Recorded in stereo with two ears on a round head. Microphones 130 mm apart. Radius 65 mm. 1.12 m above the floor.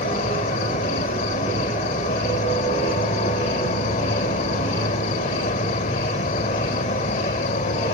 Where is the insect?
50° left (ahead or behind).